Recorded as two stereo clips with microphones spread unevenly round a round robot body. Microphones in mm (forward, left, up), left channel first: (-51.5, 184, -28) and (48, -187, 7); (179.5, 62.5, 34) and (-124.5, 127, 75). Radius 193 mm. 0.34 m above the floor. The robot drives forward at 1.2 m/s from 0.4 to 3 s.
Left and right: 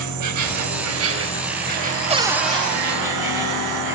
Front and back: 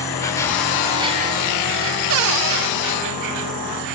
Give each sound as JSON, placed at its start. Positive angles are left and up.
{"t": 0.0, "sound": "an insect", "azimuth_deg": -75, "distance_m": 1.8}
{"t": 2.1, "sound": "a cupboard door", "azimuth_deg": -150, "distance_m": 0.5}